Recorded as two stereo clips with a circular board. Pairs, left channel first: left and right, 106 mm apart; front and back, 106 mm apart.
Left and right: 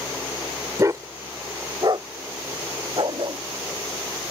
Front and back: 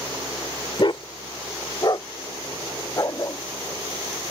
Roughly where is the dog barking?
Ahead right.